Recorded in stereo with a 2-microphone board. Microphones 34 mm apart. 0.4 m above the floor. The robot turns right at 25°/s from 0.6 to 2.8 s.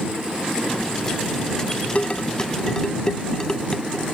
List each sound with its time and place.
1.9 s dishes clattering: 40° left (ahead or behind); by 4.0 s 20° left (ahead or behind)